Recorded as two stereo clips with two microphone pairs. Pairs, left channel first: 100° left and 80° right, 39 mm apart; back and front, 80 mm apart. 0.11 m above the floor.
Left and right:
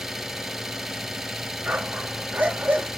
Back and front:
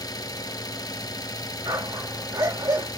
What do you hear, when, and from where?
0.0 s an engine running: 160° right, 0.9 m
1.6 s a dog barking: 30° right, 4.5 m